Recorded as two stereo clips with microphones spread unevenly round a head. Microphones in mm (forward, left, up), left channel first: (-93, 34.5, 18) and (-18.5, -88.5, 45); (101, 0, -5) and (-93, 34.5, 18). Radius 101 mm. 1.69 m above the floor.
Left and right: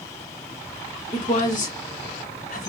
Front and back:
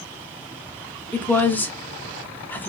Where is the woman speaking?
70° left, 0.9 m.